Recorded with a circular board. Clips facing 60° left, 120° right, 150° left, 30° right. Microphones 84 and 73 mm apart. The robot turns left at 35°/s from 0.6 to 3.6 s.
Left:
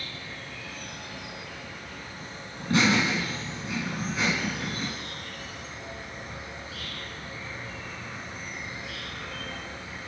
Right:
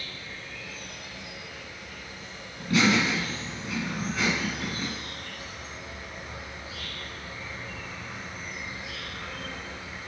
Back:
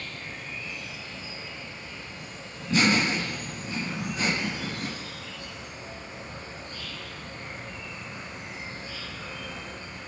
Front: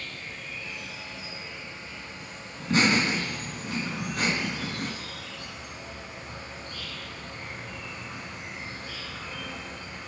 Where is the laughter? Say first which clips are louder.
Even, even; 10° left, 3.5 m; by 4.9 s 30° right, 3.5 m.